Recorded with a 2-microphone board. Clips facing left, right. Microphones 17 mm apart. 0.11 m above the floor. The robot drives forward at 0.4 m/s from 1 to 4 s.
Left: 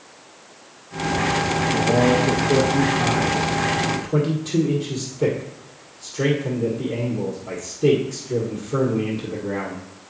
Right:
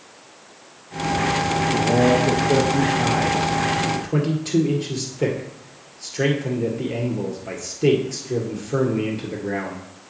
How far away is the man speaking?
About 1.4 m.